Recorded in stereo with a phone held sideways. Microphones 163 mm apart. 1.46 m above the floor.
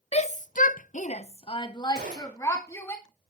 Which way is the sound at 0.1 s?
40° left (ahead or behind).